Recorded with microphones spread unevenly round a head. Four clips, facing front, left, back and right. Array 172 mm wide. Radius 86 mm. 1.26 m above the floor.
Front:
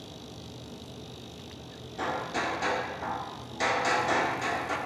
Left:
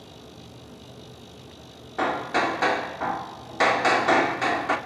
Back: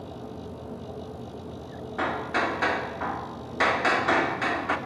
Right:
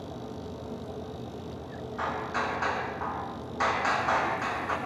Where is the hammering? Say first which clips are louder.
Left 7 dB, back 4 dB; 110° left, 1.8 m.